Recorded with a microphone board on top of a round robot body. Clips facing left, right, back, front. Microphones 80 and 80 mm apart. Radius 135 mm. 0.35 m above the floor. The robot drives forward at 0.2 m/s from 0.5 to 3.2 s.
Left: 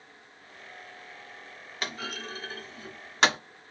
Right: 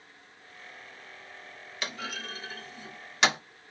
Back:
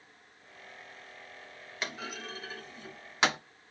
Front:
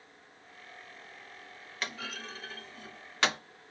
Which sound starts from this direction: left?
A clunk, at 1.8 s.